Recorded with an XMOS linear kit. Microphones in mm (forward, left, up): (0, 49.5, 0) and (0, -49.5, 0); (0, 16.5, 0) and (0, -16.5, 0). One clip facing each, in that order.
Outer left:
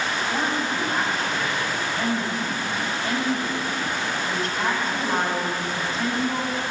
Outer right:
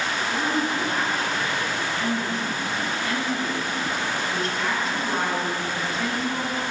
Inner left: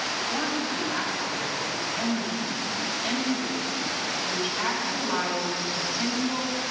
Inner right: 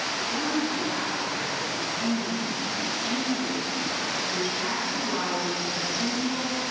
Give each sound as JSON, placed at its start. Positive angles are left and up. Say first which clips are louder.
{"t": 0.3, "sound": "a woman speaking", "louder": "outer right 2 dB, inner right 1 dB", "side_deg": 45, "distance_m": 4.0}